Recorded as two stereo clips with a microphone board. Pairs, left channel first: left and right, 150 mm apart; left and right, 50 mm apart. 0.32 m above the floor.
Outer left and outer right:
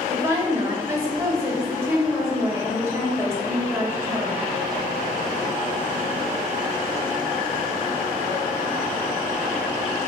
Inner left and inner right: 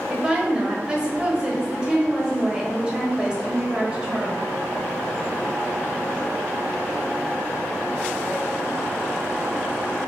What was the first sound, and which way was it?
A woman speaking, 20° right (ahead or behind).